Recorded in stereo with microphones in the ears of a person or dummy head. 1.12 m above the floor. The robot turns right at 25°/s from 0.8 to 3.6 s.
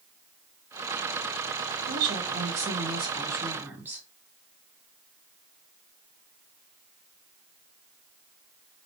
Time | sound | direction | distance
1.9 | a woman speaking | 55° right | 1.9 m